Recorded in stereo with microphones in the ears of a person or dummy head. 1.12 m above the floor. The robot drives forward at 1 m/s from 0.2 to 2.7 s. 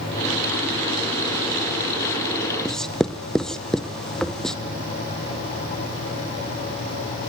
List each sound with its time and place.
2.6 s writing: 5° left (ahead or behind), 0.7 m